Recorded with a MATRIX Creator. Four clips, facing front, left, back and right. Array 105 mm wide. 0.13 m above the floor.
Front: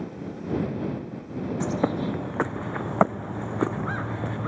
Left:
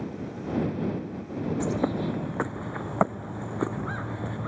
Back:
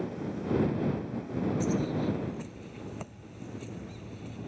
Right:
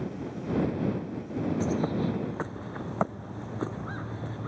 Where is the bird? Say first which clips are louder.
Left 3 dB, front 8 dB; 15° left.